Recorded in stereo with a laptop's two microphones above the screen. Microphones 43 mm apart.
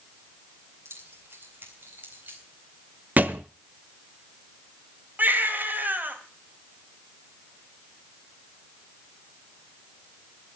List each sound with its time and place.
0.8 s keys jangling: 70° right (ahead or behind), 3.5 m; by 2.4 s 50° right (ahead or behind), 4 m
3.2 s a thud: 40° right (ahead or behind), 1.0 m
5.2 s a baby crying: 45° right (ahead or behind), 3 m